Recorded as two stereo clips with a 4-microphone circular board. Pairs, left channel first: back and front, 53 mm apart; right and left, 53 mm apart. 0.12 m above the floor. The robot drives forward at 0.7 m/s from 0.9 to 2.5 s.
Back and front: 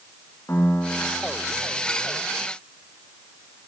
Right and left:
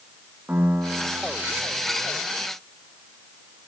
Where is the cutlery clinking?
I don't hear cutlery clinking.